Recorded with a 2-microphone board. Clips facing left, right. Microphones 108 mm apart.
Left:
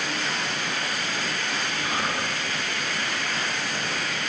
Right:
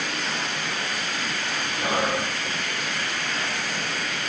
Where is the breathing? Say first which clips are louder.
Right 6 dB; 70° right (ahead or behind), 5 m.